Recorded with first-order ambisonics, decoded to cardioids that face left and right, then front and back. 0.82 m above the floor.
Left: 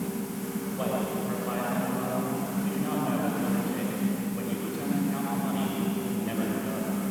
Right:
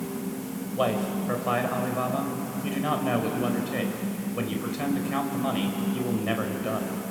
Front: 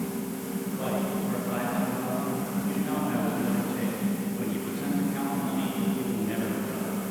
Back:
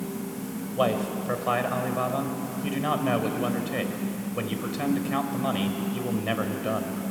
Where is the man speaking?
150° right, 4 m.